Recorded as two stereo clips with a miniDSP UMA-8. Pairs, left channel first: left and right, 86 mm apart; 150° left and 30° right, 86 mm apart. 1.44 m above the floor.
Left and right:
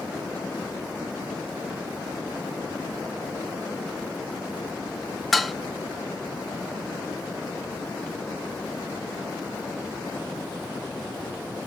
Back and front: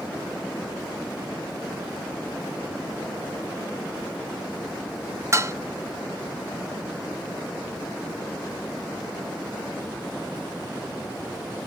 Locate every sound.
5.3 s dishes clattering: straight ahead, 0.5 m